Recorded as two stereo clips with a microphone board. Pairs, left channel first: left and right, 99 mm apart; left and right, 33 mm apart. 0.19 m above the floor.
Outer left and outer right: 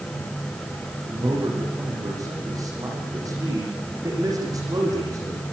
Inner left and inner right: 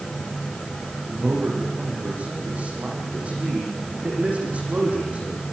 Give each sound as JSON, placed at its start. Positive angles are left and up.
{"t": 1.1, "sound": "a man speaking", "side_deg": -35, "distance_m": 9.5}